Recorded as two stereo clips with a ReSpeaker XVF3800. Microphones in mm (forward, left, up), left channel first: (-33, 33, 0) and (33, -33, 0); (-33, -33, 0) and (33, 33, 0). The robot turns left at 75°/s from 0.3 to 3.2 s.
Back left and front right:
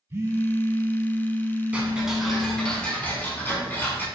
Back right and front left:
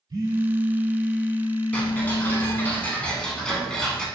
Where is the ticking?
90° right, 1.0 m; by 4.1 s 160° left, 1.0 m.